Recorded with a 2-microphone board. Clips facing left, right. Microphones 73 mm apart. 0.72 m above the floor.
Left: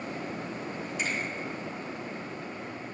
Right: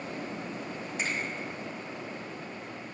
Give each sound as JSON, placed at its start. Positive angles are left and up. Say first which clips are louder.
{"t": 1.0, "sound": "a finger snap", "louder": "left 1 dB", "side_deg": -40, "distance_m": 4.0}